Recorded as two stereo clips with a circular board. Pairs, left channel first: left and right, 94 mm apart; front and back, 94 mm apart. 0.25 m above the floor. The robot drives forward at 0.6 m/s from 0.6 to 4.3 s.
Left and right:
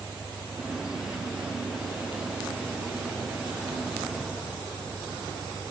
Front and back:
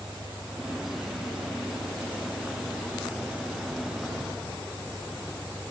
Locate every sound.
0.0 s an engine running: 140° left